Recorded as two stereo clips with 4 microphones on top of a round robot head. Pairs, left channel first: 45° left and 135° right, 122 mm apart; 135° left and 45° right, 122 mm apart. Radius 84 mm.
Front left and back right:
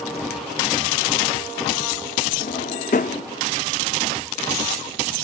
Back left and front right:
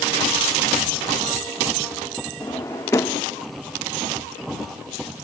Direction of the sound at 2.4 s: 70° left.